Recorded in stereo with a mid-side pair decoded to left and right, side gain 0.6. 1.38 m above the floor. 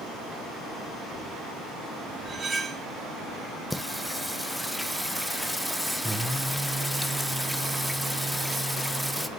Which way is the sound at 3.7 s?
5° left.